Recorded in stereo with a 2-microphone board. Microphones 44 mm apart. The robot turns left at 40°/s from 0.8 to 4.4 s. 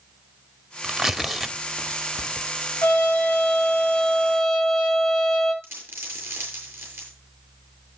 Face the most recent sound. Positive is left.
turn(degrees=-85)